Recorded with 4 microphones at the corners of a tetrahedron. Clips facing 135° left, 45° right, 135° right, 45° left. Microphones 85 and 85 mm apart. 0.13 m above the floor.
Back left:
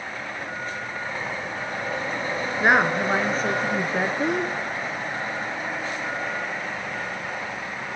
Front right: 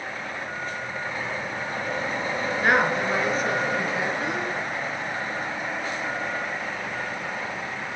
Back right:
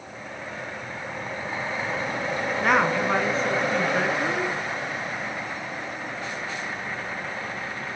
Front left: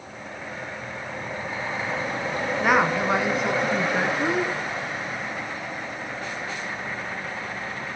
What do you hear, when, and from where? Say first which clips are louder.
2.6 s a woman speaking: back left 2 dB, front left 1 dB; 125° left, 1.1 m; by 4.5 s 110° left, 1.7 m